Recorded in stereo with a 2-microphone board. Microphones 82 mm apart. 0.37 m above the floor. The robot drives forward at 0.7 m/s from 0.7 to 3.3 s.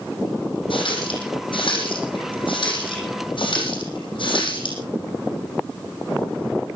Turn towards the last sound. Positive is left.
turn(degrees=70)  # may be behind; listen again after turning